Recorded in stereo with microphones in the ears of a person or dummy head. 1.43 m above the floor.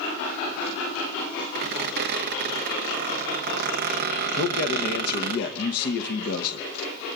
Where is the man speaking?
50° left (ahead or behind), 0.9 m.